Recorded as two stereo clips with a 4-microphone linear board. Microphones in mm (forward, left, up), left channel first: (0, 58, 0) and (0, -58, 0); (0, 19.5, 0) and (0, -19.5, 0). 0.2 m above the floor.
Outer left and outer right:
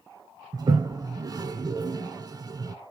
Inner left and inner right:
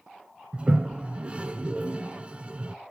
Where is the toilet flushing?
30° right (ahead or behind), 0.7 m.